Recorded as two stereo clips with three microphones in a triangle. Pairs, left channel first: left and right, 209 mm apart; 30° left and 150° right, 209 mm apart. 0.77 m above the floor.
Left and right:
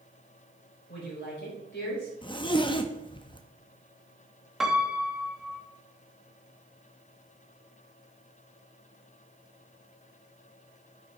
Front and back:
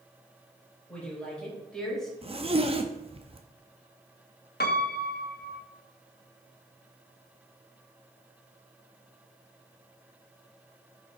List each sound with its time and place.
0.9 s a woman speaking: 115° left, 3.5 m; by 2.1 s 120° left, 4 m
2.2 s a zipper: 155° left, 0.5 m
4.6 s a piano: straight ahead, 0.6 m